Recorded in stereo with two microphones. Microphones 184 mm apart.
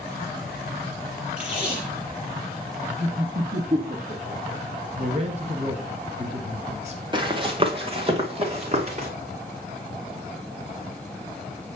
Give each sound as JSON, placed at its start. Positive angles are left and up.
{"t": 1.4, "sound": "tape being pulled", "side_deg": -5, "distance_m": 5.5}
{"t": 3.0, "sound": "laughter", "side_deg": -45, "distance_m": 1.9}
{"t": 5.0, "sound": "a man speaking", "side_deg": -40, "distance_m": 1.5}
{"t": 7.1, "sound": "running footsteps", "side_deg": -25, "distance_m": 2.0}